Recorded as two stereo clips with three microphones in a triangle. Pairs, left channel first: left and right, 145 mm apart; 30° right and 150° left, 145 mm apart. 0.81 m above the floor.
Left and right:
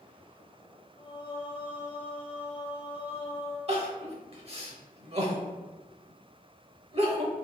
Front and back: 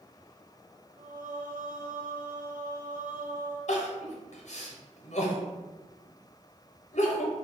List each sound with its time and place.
1.0 s singing: 140° left, 0.6 m
3.7 s crying: 55° right, 0.8 m